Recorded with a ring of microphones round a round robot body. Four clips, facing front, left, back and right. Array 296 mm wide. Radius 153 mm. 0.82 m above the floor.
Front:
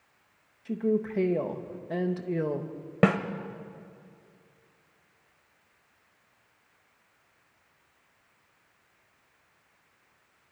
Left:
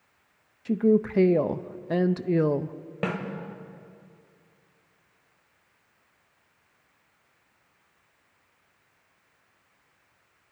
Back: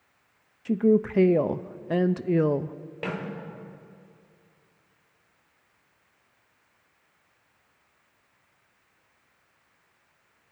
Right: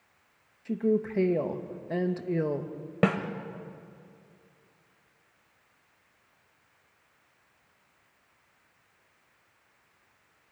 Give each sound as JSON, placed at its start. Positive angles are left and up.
{"t": 0.7, "sound": "a woman speaking", "azimuth_deg": 140, "distance_m": 0.6}
{"t": 3.0, "sound": "a snare drum", "azimuth_deg": -25, "distance_m": 1.4}